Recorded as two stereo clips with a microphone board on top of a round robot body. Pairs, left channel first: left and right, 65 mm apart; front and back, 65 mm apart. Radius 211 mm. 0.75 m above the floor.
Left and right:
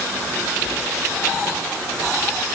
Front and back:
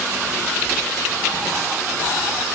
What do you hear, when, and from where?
Only background noise.